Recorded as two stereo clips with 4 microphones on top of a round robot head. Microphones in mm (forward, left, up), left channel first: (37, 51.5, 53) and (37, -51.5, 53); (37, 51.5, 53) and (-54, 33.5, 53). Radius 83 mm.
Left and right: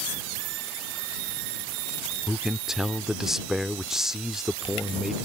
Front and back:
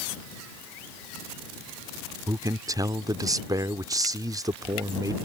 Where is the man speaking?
175° right.